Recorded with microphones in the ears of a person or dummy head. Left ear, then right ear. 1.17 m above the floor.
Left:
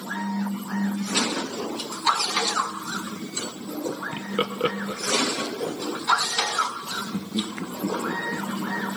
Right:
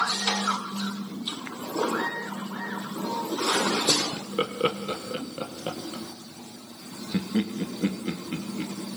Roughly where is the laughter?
Left.